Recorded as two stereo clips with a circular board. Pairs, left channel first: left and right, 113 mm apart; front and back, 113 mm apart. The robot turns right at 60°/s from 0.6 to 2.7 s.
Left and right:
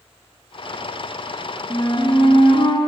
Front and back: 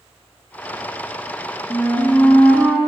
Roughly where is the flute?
Ahead left.